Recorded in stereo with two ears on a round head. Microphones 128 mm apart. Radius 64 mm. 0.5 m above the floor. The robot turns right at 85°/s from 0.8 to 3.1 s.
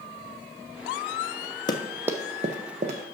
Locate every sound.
1.7 s running footsteps: 30° left (ahead or behind), 0.8 m; by 3.0 s 35° right (ahead or behind), 1.0 m